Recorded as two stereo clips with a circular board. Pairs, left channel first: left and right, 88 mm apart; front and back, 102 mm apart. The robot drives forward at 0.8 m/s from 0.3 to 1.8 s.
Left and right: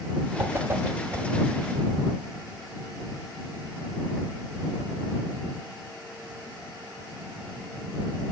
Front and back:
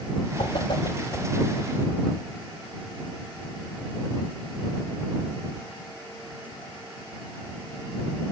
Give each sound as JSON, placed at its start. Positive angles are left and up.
{"t": 0.4, "sound": "a whoosh", "azimuth_deg": -30, "distance_m": 1.5}